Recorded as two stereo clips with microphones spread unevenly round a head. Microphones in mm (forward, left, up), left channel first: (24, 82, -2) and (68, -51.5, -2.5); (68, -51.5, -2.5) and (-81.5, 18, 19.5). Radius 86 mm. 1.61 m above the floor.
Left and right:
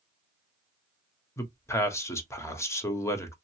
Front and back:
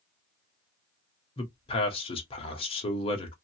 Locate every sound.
1.4 s a man speaking: 35° left, 1.1 m